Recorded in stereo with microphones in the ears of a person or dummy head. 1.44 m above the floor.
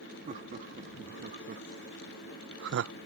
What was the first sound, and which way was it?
Laughter, 40° right (ahead or behind).